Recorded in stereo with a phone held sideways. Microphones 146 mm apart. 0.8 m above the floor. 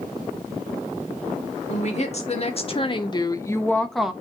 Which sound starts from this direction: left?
A woman speaking, at 1.7 s.